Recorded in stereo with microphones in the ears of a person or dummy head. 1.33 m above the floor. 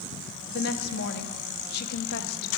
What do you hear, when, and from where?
0.5 s a woman speaking: 55° left (ahead or behind), 1.1 m